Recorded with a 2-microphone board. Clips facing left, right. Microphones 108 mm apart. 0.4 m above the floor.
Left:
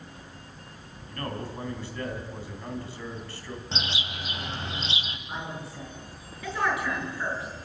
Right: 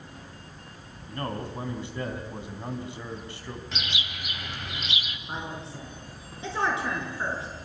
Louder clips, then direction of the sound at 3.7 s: Left 2 dB; 30° left (ahead or behind).